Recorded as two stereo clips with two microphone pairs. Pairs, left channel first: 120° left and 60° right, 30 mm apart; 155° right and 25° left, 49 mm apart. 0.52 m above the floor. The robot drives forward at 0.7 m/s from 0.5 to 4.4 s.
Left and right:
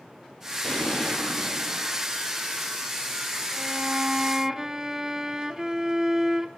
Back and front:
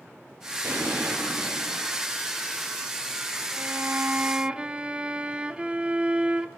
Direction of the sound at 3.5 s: Straight ahead.